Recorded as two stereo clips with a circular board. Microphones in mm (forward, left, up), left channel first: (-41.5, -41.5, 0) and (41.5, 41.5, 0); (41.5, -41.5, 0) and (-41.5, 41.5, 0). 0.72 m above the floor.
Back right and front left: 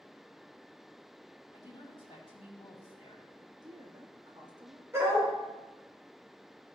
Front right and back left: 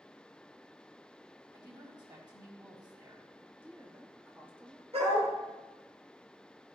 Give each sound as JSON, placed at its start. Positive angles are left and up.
{"t": 1.5, "sound": "a woman speaking", "azimuth_deg": -175, "distance_m": 4.0}
{"t": 3.4, "sound": "a woman speaking", "azimuth_deg": 70, "distance_m": 1.3}
{"t": 4.9, "sound": "a dog barking", "azimuth_deg": 110, "distance_m": 4.0}